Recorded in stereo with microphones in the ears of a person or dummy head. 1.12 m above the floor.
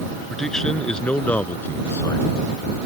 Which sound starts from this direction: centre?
A man speaking, at 0.3 s.